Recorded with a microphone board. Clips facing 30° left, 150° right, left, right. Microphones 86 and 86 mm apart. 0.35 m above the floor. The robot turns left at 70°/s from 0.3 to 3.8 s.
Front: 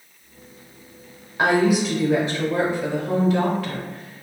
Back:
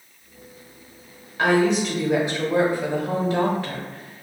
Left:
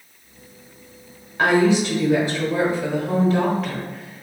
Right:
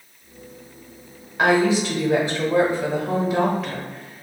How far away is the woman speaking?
About 0.9 m.